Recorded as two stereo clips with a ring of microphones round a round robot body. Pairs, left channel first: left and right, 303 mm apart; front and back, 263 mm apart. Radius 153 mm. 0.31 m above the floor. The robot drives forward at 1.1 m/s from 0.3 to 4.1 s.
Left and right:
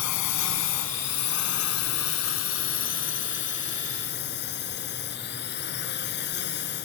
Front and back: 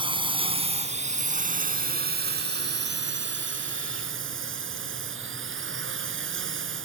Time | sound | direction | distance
0.0 | a drone | 110° left | ?